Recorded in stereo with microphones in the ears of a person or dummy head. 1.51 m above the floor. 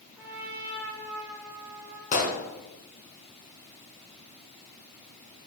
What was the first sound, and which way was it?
A trumpet, 10° right (ahead or behind).